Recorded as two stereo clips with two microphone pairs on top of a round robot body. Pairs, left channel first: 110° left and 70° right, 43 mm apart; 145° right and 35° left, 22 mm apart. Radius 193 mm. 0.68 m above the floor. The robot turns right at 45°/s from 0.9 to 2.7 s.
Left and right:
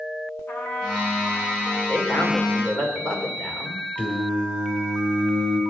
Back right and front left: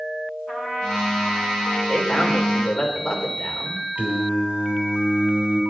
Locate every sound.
0.5 s a trumpet: 75° left, 4.5 m; by 1.8 s 115° left, 4.5 m
1.9 s a man speaking: 135° left, 3.5 m; by 3.8 s 175° left, 3.5 m
4.0 s singing: 50° left, 2 m